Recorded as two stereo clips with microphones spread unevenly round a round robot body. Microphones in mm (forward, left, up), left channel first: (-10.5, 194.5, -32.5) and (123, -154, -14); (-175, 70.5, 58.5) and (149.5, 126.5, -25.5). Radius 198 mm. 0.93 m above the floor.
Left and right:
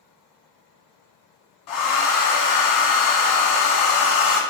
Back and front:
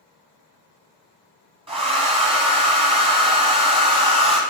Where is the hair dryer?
90° left, 1.2 m.